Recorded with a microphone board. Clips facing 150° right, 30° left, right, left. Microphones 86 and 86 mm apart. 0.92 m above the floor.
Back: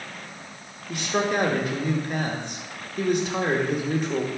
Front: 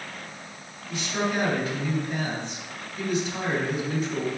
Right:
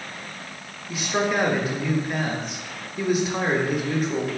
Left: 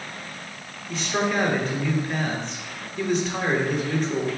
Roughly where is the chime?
No chime in this recording.